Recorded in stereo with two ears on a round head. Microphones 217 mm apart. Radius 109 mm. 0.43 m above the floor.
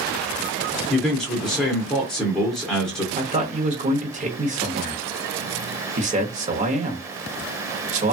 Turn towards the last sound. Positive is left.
turn(degrees=-30)  # may be behind; listen again after turning